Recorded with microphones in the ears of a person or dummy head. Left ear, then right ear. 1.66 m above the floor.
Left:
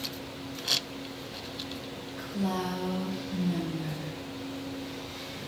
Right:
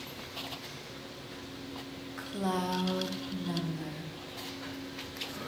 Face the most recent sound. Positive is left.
turn(degrees=-70)  # may be behind; listen again after turning